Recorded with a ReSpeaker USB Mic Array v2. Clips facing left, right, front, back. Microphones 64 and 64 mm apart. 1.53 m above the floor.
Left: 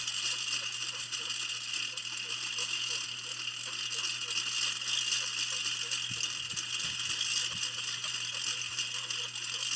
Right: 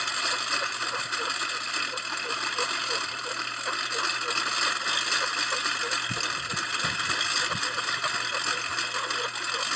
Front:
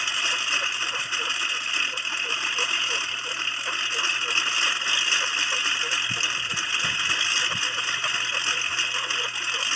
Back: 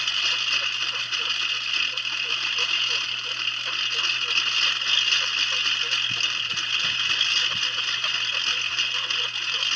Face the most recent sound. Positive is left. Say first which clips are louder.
# right 11 dB, front 1 dB
turn(degrees=-70)